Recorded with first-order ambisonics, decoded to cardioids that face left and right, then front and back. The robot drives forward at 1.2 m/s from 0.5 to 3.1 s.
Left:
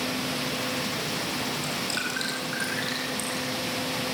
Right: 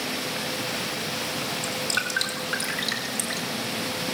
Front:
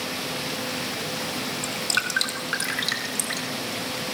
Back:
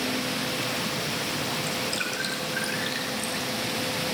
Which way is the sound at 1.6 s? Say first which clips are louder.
Right 2 dB, front 3 dB; 15° right.